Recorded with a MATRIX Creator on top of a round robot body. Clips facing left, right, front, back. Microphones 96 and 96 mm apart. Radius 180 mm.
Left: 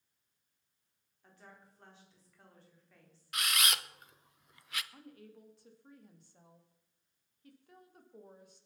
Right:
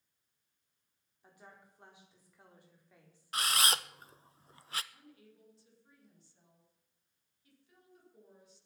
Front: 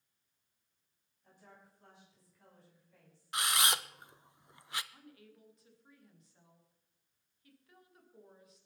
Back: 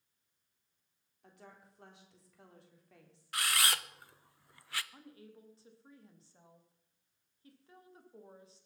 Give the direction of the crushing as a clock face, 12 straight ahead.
I don't hear crushing.